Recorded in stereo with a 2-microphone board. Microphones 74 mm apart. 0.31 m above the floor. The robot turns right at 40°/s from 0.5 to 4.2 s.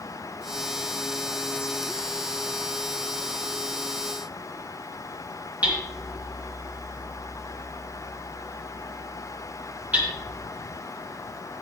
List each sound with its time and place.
5.6 s hammering: 20° right (ahead or behind), 3.5 m